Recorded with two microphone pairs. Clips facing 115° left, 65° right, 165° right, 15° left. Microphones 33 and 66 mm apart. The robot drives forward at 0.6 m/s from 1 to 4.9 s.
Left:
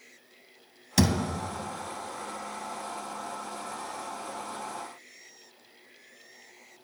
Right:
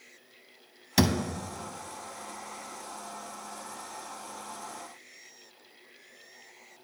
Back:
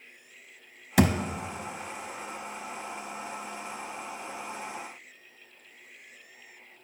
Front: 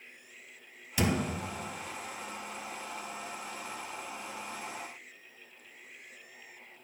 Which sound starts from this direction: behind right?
A thud, at 1.0 s.